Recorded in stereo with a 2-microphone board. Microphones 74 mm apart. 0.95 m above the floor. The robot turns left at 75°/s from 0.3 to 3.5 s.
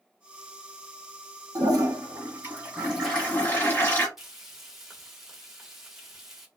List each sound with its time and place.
1.6 s a toilet flushing: 75° right, 1.2 m; by 4.1 s 140° left, 1.2 m
4.2 s frying: 5° right (ahead or behind), 1.0 m